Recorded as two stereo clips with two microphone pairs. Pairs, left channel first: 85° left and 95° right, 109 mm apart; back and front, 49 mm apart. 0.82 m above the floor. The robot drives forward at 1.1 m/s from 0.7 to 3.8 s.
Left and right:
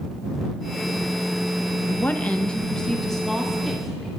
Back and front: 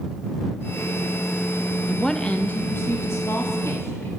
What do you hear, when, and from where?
1.9 s a woman speaking: 70° left, 0.8 m; by 4.1 s 175° left, 2 m